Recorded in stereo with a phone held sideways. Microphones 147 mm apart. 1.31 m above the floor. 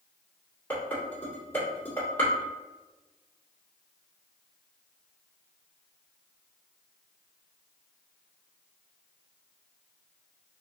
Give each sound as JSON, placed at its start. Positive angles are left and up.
{"t": 0.7, "sound": "dishes clattering", "side_deg": 15, "distance_m": 2.0}